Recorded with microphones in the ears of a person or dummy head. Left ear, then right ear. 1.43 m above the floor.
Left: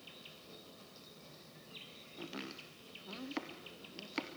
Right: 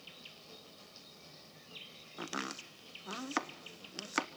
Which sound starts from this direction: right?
Chopping, at 2.2 s.